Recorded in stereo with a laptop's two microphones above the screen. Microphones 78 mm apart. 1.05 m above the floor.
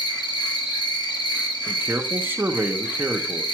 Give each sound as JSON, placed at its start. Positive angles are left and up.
{"t": 0.0, "sound": "an insect", "side_deg": 80, "distance_m": 1.0}
{"t": 1.7, "sound": "a man speaking", "side_deg": -25, "distance_m": 0.7}